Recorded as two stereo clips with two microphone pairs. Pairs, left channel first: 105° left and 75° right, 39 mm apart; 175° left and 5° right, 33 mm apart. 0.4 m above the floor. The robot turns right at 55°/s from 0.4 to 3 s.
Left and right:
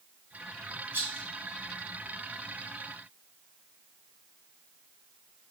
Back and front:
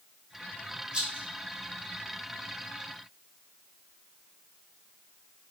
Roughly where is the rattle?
Right.